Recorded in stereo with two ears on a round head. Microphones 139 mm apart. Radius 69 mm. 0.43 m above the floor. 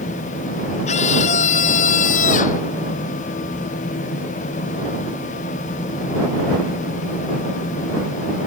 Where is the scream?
45° left (ahead or behind); by 2.6 s 50° left (ahead or behind).